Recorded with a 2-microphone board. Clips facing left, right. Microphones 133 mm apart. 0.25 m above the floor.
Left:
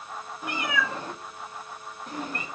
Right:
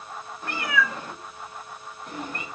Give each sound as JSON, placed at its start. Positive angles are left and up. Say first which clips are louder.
{"t": 0.4, "sound": "a cat meowing", "louder": "right 2 dB", "side_deg": 10, "distance_m": 0.6}